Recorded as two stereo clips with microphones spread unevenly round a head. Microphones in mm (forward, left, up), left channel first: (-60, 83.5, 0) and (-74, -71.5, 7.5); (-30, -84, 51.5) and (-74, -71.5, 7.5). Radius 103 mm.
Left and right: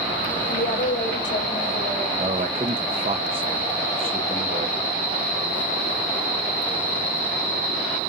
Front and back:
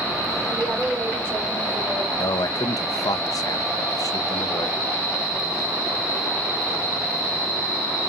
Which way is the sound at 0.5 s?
70° left.